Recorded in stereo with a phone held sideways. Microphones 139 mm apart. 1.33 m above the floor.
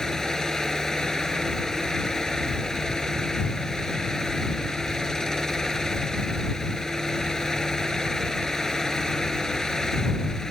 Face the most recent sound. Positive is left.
turn(degrees=5)  # may be behind; listen again after turning